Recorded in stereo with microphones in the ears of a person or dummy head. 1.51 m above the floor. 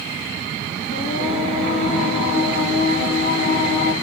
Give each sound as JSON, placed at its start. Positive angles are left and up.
{"t": 0.9, "sound": "singing", "side_deg": 30, "distance_m": 1.2}